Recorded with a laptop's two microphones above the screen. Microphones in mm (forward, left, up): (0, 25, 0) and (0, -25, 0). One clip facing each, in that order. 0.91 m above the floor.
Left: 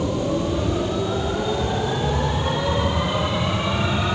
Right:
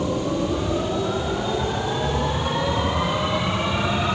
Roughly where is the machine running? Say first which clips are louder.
Left 1 dB; right.